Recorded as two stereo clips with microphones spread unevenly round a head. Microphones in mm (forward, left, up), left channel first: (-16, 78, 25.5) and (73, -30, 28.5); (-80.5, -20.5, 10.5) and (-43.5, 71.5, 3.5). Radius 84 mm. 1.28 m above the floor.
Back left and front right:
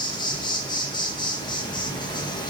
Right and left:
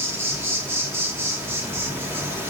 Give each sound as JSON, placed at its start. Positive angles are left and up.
{"t": 0.0, "sound": "an insect", "azimuth_deg": 100, "distance_m": 1.3}